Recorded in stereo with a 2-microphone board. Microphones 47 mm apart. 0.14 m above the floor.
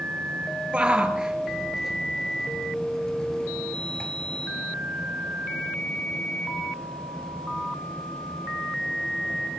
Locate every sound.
0.7 s a shout: 20° right (ahead or behind), 2.5 m; by 4.1 s 25° left (ahead or behind), 2.5 m